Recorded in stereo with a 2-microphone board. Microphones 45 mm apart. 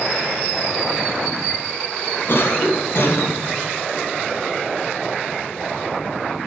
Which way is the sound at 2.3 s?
50° left (ahead or behind).